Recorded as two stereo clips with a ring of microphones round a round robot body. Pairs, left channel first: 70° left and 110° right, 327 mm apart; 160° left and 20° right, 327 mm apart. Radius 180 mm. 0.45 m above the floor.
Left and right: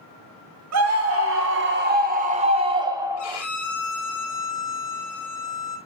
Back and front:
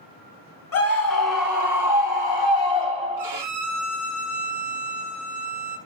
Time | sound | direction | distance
0.7 | a scream | 155° right | 3 m
3.2 | a violin | 60° left | 5.5 m